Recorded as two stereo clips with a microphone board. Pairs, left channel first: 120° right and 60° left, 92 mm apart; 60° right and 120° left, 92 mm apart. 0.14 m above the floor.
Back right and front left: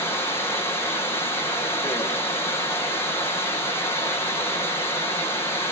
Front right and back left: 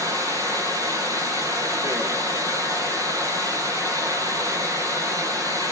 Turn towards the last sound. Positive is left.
turn(degrees=175)